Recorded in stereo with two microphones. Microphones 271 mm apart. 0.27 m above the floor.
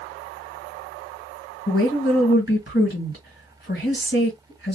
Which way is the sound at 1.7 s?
40° left (ahead or behind).